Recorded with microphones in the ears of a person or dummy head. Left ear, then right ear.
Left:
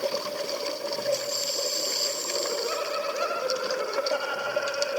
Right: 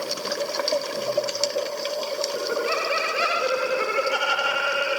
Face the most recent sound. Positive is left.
turn(degrees=-80)